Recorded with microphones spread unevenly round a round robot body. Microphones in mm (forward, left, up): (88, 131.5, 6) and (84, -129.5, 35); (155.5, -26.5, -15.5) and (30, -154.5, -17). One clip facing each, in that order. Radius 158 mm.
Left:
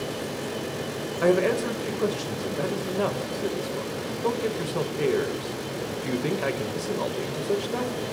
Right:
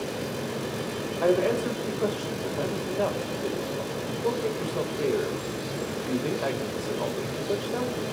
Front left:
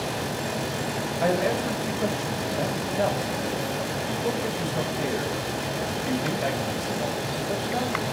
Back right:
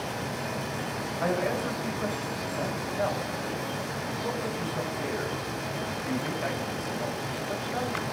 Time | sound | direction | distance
1.2 | a man speaking | 90° left | 1.4 m